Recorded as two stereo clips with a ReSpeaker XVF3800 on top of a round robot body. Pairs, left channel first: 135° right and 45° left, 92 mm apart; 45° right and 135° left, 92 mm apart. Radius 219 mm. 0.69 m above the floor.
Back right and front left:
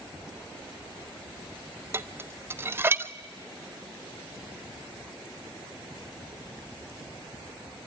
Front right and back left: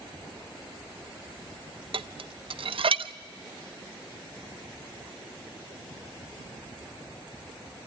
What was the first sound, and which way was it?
Dishes clattering, 110° left.